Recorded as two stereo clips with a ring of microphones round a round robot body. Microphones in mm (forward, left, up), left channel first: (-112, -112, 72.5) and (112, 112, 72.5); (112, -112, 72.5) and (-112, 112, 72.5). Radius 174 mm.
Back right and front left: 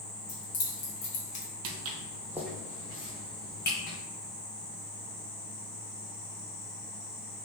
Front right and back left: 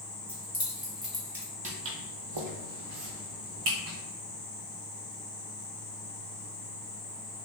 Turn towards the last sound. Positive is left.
turn(degrees=165)